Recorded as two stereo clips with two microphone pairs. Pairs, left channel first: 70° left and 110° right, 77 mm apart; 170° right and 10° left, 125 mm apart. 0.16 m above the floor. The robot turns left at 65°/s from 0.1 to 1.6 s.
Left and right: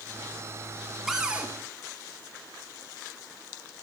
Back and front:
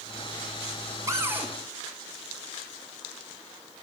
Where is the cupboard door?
25° right, 1.1 m; by 1.5 s 55° right, 1.1 m.